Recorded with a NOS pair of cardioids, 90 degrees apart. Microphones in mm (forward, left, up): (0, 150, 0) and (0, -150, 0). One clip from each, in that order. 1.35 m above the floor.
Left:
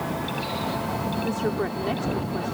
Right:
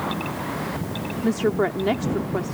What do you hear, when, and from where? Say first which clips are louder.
1.2 s a woman speaking: right 9 dB; 40° right